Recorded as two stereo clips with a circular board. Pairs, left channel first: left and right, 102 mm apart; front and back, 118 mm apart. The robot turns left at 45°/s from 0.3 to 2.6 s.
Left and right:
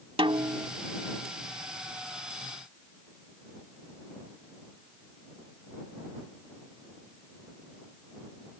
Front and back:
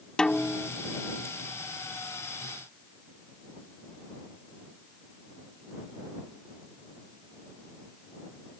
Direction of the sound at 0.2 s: 80° right.